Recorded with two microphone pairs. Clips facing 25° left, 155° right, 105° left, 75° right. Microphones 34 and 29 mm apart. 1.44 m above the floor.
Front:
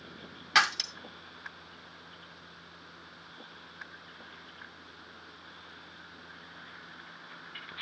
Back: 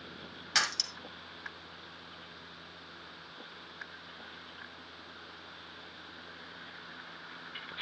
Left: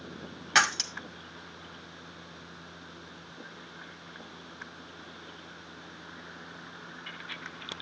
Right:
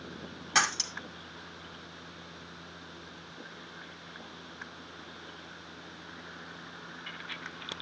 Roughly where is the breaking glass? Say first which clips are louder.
Front 6 dB, left 4 dB; left.